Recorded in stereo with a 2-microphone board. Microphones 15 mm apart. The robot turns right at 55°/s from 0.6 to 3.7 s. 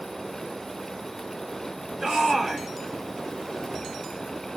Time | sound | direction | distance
2.0 | a shout | 65° right | 1.9 m